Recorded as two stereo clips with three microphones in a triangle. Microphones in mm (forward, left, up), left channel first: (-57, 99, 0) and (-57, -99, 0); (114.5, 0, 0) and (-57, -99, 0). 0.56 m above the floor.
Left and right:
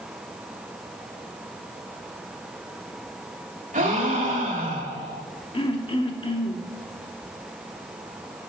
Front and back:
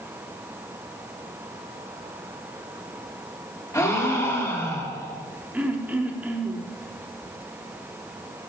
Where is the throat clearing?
135° left, 0.9 m.